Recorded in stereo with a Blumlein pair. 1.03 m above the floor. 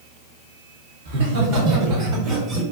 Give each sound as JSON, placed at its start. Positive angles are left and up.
{"t": 1.1, "sound": "laughter", "azimuth_deg": -60, "distance_m": 1.2}